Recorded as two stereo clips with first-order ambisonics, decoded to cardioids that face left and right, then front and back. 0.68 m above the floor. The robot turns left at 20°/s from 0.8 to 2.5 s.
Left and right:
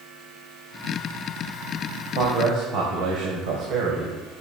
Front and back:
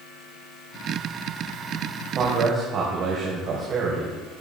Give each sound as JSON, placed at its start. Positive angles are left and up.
{"t": 2.1, "sound": "a man speaking", "azimuth_deg": -125, "distance_m": 2.5}